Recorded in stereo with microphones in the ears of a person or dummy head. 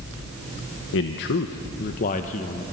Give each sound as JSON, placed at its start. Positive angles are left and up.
{"t": 0.9, "sound": "a man speaking", "side_deg": 60, "distance_m": 1.0}